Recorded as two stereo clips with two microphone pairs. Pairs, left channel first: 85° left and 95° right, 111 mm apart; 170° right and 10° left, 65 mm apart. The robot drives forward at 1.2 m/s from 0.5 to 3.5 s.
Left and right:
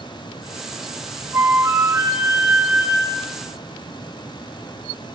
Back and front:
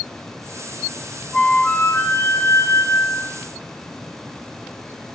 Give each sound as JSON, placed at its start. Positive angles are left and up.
{"t": 1.3, "sound": "a flute", "azimuth_deg": -110, "distance_m": 1.5}